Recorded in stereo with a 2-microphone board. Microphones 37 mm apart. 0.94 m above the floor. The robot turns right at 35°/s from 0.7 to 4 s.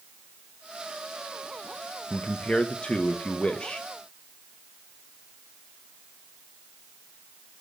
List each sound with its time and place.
2.1 s a man speaking: 60° left, 0.7 m; by 3.9 s 120° left, 0.7 m